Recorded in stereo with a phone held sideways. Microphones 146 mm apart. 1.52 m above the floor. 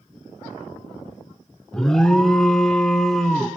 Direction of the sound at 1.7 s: 5° left (ahead or behind).